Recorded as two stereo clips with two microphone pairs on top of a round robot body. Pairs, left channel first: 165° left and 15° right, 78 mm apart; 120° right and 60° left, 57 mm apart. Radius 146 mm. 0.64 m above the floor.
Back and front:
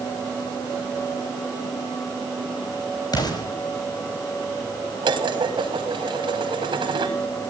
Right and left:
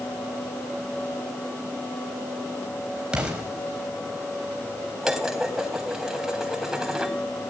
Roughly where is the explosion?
Behind left.